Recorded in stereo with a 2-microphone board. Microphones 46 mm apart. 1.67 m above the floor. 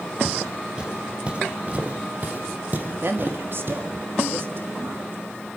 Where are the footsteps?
15° right (ahead or behind), 4 m; by 3.8 s 55° right (ahead or behind), 4 m.